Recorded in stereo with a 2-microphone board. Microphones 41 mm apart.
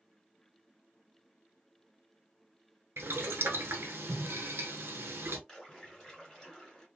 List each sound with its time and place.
3.0 s boiling: 65° right (ahead or behind), 0.8 m
5.5 s a splash: 10° left (ahead or behind), 1.8 m